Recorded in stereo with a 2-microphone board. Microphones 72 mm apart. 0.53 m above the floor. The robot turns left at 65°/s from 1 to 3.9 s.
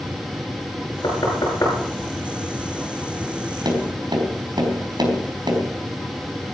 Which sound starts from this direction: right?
Tapping, at 3.6 s.